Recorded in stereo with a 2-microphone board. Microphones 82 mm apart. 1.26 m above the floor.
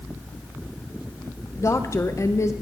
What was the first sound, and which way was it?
A woman speaking, 35° left (ahead or behind).